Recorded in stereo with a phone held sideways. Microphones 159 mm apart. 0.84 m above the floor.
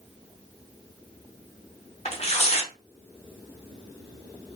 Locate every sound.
2.0 s tearing paper: 40° left (ahead or behind), 0.8 m